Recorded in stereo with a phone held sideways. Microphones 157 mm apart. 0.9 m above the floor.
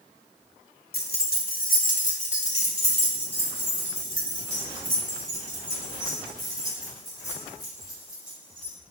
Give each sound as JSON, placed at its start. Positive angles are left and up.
{"t": 0.9, "sound": "keys jangling", "side_deg": 85, "distance_m": 0.9}